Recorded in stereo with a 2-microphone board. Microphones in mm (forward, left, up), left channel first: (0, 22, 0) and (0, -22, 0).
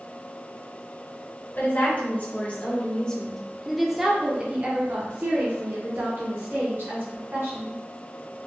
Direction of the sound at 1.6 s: 45° left (ahead or behind).